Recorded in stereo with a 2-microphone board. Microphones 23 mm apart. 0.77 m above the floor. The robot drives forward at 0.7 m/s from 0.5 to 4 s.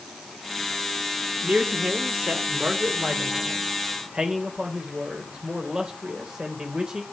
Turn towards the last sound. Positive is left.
turn(degrees=-40)  # may be behind; listen again after turning